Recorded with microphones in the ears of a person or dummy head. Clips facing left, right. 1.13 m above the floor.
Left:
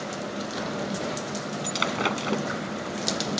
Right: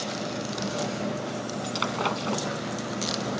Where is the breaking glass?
20° left (ahead or behind).